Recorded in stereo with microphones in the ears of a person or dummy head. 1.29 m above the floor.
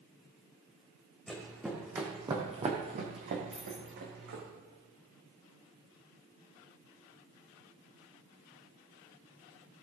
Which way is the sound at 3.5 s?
Centre (ahead or behind).